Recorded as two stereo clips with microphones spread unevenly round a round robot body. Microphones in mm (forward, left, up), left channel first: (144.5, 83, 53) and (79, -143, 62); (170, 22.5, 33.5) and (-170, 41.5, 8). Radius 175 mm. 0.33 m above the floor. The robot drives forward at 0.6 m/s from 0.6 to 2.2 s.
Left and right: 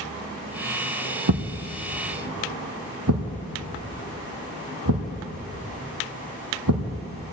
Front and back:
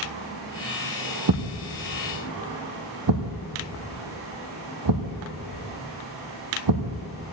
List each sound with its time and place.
1.3 s a thud: 135° right, 1.5 m; by 7.0 s 145° right, 1.9 m